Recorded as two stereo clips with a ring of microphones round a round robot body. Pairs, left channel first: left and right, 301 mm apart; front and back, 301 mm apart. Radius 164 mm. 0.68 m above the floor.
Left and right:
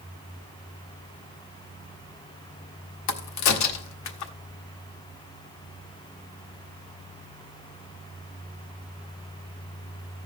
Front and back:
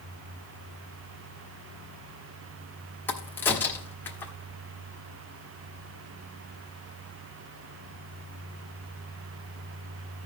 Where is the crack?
85° left, 1.1 m.